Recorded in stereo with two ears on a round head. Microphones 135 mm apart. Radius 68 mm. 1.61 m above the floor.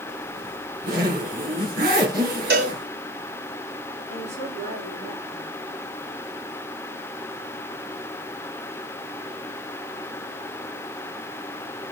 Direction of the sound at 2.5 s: 80° right.